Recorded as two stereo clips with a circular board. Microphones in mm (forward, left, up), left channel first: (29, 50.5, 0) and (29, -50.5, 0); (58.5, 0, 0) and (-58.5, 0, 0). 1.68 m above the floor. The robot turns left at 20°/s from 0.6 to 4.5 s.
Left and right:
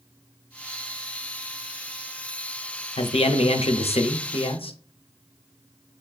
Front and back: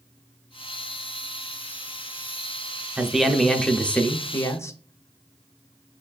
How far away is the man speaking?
About 0.5 m.